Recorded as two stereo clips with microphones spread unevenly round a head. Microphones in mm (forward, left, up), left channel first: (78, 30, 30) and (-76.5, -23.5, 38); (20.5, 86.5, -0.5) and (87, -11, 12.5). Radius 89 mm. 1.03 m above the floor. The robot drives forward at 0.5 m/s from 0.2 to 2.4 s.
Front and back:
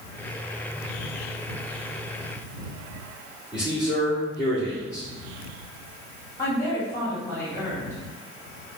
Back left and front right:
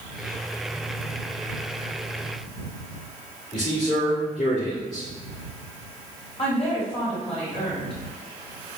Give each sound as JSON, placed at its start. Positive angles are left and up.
{"t": 3.5, "sound": "a man speaking", "azimuth_deg": 130, "distance_m": 3.0}
{"t": 6.4, "sound": "a woman speaking", "azimuth_deg": 95, "distance_m": 2.5}